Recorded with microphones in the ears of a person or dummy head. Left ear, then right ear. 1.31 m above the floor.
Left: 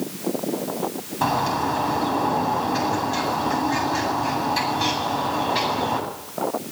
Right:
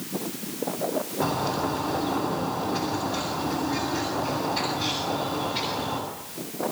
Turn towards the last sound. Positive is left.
turn(degrees=55)  # may be behind; listen again after turning